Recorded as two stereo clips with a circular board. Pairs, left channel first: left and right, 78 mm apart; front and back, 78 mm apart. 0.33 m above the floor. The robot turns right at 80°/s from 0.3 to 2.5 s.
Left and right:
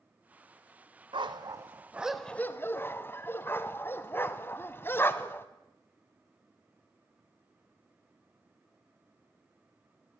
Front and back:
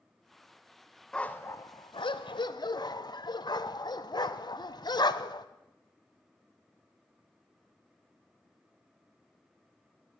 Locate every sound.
1.1 s a dog barking: 80° right, 1.0 m; by 5.5 s 30° left, 1.0 m